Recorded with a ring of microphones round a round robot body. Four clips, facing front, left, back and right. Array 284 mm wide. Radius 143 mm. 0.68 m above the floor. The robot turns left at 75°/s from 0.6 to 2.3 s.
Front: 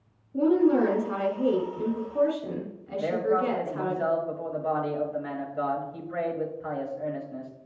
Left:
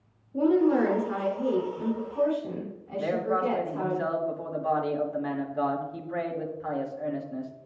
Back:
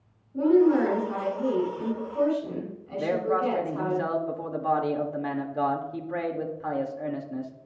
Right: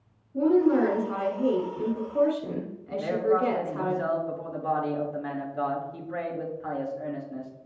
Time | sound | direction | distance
0.3 | a woman speaking | 50° left | 4.5 m
3.0 | a man speaking | straight behind | 2 m